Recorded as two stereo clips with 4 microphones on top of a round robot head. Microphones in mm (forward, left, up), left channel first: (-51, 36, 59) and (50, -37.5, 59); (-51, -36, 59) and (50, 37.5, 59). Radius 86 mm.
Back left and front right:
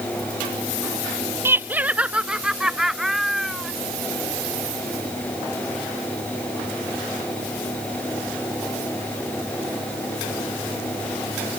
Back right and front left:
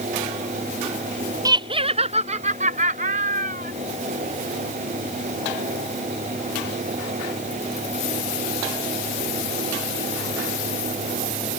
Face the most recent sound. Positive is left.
turn(degrees=55)